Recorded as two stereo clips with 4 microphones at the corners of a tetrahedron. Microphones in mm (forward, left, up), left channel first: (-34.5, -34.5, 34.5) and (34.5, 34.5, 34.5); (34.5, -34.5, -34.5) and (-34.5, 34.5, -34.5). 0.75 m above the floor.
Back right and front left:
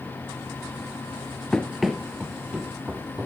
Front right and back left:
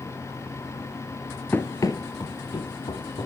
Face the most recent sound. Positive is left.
turn(degrees=-30)